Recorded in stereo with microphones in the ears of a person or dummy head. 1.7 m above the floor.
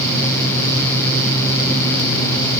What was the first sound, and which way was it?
Only background noise.